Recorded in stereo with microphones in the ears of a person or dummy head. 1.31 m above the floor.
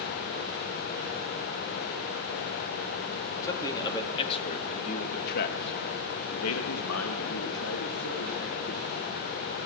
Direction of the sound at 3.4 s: 25° left (ahead or behind).